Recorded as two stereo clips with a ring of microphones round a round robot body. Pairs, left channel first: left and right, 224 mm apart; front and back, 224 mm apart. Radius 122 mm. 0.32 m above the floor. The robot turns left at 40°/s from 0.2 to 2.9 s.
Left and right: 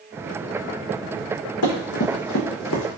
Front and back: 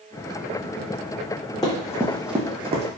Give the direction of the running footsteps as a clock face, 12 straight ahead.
10 o'clock.